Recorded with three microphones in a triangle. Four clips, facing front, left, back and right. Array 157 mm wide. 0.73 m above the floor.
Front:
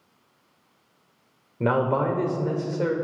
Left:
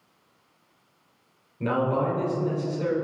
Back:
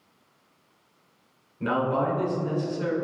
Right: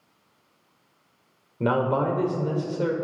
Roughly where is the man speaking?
Ahead right.